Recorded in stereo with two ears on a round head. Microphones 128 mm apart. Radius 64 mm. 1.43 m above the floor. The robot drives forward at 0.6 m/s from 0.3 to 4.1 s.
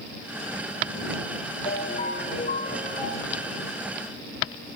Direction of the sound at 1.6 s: 55° left (ahead or behind).